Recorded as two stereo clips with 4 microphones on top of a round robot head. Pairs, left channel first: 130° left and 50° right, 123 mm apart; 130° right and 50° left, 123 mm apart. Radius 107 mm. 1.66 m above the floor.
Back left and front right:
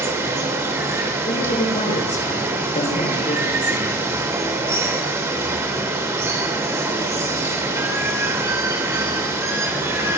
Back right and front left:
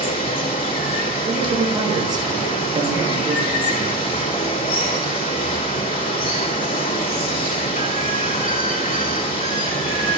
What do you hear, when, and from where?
0.0 s running water: 115° right, 3 m
1.3 s a man speaking: 105° left, 8 m